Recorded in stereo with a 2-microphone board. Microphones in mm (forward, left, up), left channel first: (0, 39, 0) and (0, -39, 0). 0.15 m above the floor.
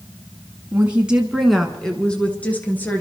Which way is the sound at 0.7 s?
25° right (ahead or behind).